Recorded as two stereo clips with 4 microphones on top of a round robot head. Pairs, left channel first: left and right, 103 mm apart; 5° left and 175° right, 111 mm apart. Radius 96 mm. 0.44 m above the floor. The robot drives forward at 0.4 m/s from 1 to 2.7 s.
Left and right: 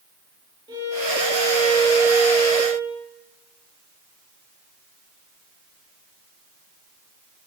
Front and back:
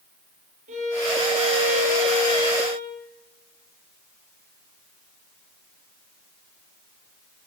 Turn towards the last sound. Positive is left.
turn(degrees=-155)